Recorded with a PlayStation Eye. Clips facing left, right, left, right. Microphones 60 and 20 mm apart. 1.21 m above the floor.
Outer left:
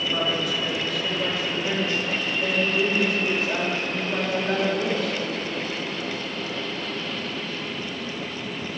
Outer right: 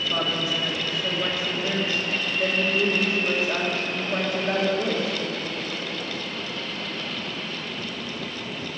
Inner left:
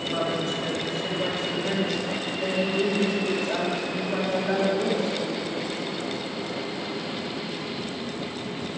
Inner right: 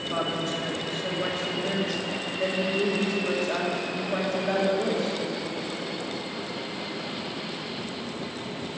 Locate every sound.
0.1 s a woman speaking: 25° right (ahead or behind), 1.8 m